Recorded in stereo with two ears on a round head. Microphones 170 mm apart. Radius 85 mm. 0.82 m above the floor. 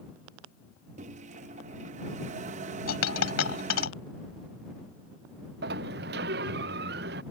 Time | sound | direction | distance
1.0 | a microwave | 40° right (ahead or behind) | ?
2.9 | a dropped coin | 80° left | ?
5.6 | a sliding door | 60° right (ahead or behind) | ?